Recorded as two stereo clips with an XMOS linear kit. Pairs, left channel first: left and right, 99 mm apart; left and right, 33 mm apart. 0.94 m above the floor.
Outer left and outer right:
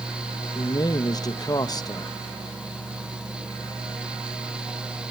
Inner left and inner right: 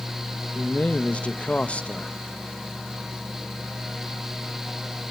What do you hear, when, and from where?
0.6 s a man speaking: 40° left (ahead or behind), 1.3 m